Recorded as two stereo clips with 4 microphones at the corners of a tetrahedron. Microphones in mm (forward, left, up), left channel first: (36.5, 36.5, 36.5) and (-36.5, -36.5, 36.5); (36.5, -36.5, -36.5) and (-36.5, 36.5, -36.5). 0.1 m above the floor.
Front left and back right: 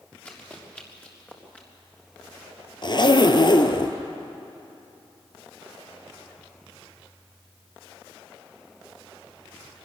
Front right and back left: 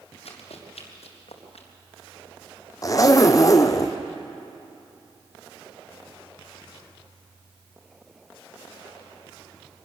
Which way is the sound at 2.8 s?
5° left.